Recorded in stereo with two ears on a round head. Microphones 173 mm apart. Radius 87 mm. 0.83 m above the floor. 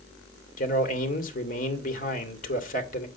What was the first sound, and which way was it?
A man speaking, 40° left (ahead or behind).